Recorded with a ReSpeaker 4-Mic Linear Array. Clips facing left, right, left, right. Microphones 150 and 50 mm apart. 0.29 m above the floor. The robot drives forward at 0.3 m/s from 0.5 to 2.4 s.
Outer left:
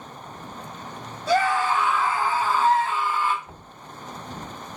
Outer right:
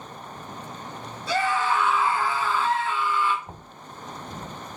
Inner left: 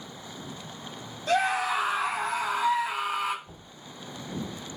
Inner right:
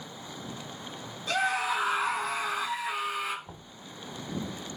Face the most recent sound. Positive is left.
turn(degrees=-20)  # may be behind; listen again after turning